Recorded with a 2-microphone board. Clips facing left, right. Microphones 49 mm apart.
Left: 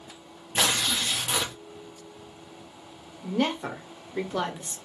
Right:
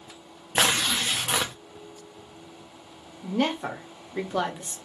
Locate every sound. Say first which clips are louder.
0.6 s tearing paper: right 2 dB; 40° right (ahead or behind), 0.5 m
3.2 s a woman speaking: right 1 dB; 10° right (ahead or behind), 0.7 m